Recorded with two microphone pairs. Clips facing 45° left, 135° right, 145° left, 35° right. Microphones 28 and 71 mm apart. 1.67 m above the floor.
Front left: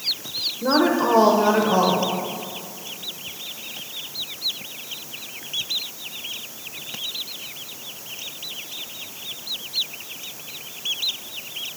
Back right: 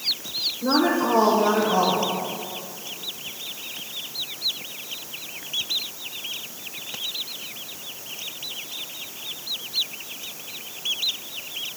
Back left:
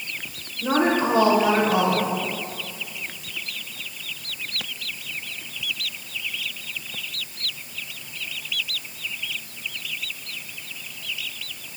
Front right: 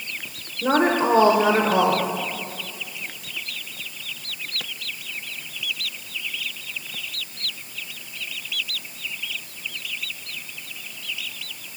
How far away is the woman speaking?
About 0.8 m.